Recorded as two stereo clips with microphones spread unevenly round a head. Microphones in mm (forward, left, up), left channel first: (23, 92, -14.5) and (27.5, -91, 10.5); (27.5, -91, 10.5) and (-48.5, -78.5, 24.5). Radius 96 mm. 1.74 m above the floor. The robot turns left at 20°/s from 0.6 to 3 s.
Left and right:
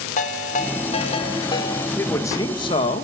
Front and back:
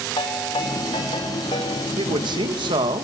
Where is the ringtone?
40° left, 4 m; by 1.9 s 15° left, 4 m.